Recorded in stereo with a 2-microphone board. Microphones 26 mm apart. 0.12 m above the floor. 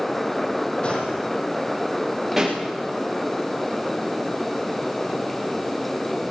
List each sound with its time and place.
0.8 s a gunshot: 40° left (ahead or behind), 5 m
2.4 s a pop: 10° right (ahead or behind), 8.5 m